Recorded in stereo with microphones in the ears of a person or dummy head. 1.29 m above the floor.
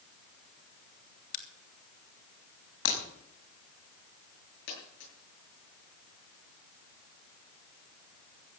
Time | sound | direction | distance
1.3 | a crack | 60° left (ahead or behind) | 2 m
2.9 | breaking glass | 75° left (ahead or behind) | 5.5 m
4.7 | a dropped coin | 75° left (ahead or behind) | 8 m